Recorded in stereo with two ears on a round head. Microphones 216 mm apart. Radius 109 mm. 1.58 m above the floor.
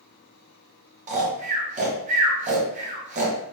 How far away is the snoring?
About 0.7 m.